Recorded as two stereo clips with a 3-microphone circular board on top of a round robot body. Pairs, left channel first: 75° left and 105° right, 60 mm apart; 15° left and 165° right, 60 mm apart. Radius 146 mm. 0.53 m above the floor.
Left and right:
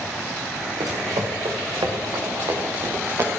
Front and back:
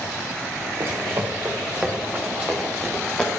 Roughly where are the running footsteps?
Behind right.